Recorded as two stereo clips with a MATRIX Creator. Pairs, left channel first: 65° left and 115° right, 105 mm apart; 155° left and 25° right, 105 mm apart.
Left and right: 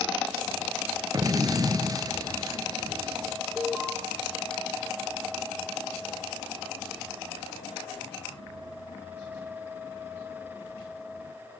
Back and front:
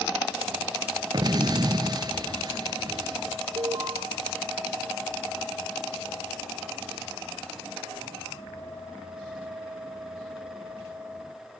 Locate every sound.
1.1 s an explosion: 65° right, 0.8 m
3.6 s an alarm: 20° right, 1.7 m